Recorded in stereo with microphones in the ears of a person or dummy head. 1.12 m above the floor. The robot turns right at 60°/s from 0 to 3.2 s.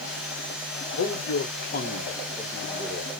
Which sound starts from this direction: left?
A man speaking, at 1.0 s.